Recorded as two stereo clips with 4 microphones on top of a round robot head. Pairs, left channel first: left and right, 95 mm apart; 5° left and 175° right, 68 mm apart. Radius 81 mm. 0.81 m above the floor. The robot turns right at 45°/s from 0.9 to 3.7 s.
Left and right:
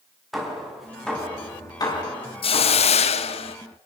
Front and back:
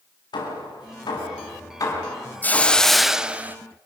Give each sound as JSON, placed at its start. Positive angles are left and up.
{"t": 0.3, "sound": "hammering", "azimuth_deg": 0, "distance_m": 7.0}
{"t": 2.4, "sound": "a hiss", "azimuth_deg": 70, "distance_m": 1.2}